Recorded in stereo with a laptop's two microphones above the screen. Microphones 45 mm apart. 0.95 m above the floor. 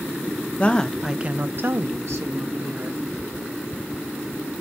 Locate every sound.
0.6 s a woman speaking: 25° left (ahead or behind), 0.6 m; by 3.0 s 70° right (ahead or behind), 1.7 m